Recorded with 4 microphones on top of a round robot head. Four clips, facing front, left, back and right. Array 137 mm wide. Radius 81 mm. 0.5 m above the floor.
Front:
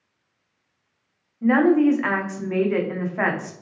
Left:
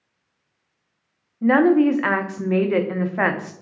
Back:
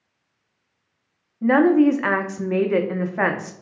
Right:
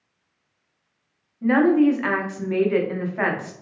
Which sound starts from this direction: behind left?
A woman speaking, at 1.4 s.